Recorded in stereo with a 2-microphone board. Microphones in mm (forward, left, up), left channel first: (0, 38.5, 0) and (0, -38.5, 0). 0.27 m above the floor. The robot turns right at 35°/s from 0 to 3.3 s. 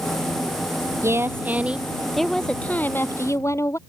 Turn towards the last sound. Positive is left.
turn(degrees=40)